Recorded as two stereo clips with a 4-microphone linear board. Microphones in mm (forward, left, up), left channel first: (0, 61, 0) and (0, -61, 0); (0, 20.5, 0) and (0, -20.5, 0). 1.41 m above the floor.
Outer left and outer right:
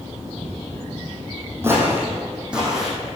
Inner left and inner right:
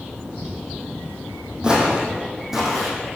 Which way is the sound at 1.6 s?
20° right (ahead or behind).